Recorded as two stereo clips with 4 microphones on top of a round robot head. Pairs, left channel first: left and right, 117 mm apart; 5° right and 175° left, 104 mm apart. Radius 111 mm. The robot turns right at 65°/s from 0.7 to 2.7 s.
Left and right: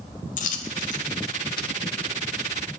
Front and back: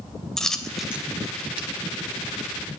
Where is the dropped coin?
80° left, 0.6 m; by 1.7 s 145° left, 0.6 m.